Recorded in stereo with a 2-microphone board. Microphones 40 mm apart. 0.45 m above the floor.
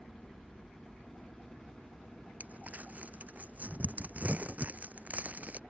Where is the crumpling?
40° right (ahead or behind).